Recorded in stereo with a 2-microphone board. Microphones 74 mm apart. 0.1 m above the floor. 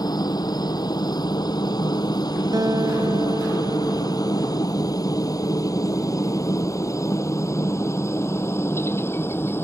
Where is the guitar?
60° right (ahead or behind).